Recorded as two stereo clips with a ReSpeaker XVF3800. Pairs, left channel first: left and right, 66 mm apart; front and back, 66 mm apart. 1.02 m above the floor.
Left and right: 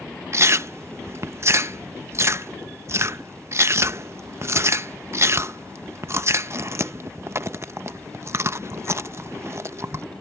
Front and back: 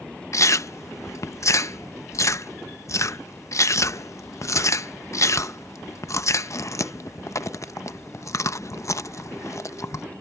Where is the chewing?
40° right.